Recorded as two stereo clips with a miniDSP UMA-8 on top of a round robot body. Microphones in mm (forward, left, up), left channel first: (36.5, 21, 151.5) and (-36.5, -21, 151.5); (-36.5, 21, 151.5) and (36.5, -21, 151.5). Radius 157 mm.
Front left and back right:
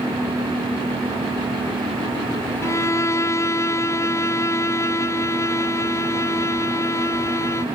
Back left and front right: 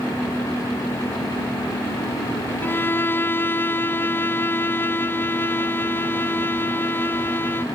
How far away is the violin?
About 0.6 m.